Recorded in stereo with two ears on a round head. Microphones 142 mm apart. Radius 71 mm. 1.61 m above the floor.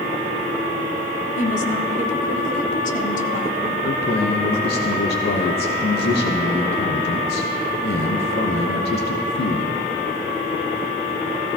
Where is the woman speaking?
50° left (ahead or behind), 1.1 m.